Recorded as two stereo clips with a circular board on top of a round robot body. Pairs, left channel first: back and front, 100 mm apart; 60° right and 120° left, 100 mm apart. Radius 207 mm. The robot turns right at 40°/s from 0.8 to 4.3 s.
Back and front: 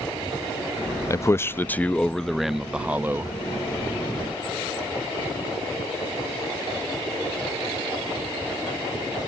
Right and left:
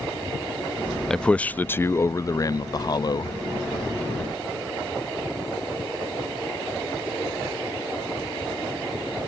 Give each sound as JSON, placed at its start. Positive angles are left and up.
{"t": 1.1, "sound": "a man speaking", "azimuth_deg": -140}